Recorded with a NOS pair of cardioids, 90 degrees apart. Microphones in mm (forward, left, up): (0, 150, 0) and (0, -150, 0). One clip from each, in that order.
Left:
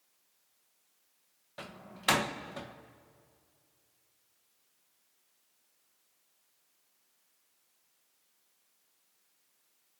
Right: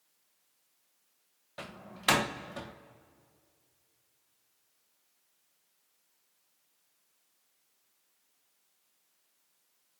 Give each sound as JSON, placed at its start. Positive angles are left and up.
{"t": 1.6, "sound": "a door slam", "azimuth_deg": -10, "distance_m": 1.1}